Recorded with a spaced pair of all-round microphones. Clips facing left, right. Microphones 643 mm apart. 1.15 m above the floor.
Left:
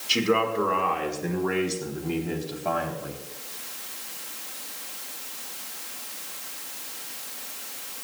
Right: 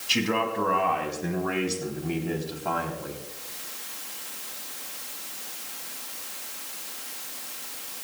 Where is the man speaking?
25° right (ahead or behind), 4 m; by 3.2 s 10° left (ahead or behind), 3 m.